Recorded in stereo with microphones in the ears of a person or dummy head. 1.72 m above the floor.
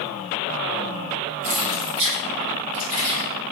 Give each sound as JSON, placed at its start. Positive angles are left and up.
{"t": 1.4, "sound": "keys jangling", "side_deg": -40, "distance_m": 0.8}